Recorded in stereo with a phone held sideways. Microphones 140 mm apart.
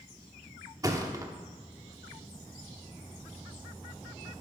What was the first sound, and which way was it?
A thud, 25° right (ahead or behind).